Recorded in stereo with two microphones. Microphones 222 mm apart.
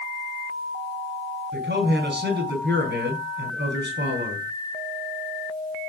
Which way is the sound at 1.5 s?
55° right (ahead or behind).